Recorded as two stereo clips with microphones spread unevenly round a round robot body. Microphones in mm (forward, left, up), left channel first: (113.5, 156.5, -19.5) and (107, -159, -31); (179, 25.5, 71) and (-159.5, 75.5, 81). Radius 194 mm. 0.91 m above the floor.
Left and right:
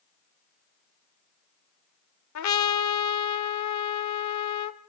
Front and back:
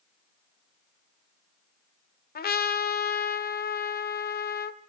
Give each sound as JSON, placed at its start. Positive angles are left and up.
{"t": 2.4, "sound": "a trumpet", "azimuth_deg": 55, "distance_m": 1.2}